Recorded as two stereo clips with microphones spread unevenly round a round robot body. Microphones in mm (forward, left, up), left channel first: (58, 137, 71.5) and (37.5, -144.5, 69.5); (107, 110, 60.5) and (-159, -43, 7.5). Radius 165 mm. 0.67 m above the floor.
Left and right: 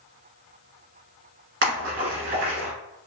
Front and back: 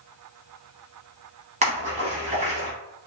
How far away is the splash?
About 0.6 m.